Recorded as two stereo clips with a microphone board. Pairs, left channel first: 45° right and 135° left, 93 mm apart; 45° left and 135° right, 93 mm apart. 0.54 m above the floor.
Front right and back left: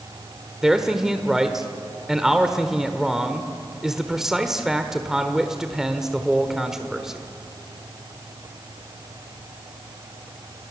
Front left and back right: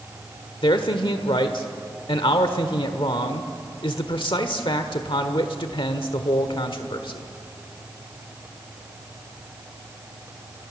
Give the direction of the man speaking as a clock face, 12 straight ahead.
10 o'clock.